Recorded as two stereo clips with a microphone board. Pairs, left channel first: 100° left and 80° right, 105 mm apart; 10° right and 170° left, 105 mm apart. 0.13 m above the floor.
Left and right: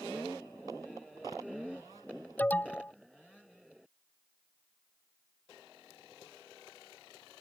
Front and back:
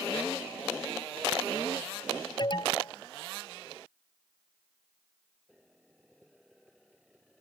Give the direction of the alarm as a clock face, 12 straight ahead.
11 o'clock.